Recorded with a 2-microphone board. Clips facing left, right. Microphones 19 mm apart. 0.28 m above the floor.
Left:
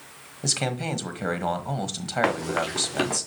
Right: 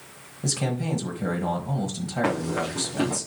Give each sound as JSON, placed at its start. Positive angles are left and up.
{"t": 0.4, "sound": "a man speaking", "side_deg": 40, "distance_m": 1.3}
{"t": 2.2, "sound": "running footsteps", "side_deg": 50, "distance_m": 2.5}